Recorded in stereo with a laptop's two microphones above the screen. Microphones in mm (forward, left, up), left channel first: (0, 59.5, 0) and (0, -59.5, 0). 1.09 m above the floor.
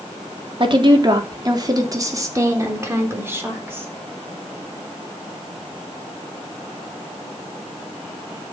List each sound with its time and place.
0.6 s a woman speaking: 45° right (ahead or behind), 2.5 m; by 3.9 s 15° right (ahead or behind), 4 m